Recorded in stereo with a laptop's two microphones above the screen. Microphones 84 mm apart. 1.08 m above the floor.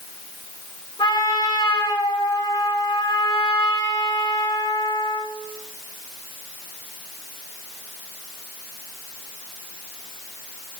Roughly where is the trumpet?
Left.